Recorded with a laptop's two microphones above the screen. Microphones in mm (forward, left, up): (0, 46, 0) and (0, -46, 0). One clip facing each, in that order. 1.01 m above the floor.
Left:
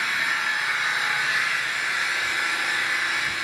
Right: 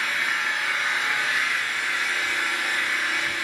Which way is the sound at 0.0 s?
15° left (ahead or behind).